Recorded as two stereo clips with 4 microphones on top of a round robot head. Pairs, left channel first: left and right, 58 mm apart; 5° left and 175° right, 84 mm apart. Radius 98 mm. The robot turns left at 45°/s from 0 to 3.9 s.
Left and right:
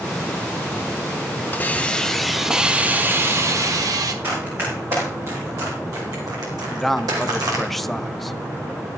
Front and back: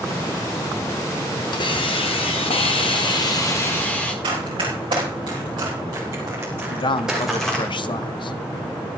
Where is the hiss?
35° left, 1.5 m; by 4.1 s 75° right, 1.5 m.